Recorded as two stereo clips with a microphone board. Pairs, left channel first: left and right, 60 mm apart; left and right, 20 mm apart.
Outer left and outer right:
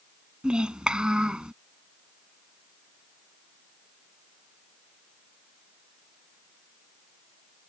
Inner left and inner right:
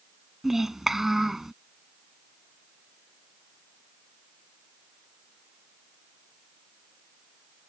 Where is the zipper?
No zipper in this recording.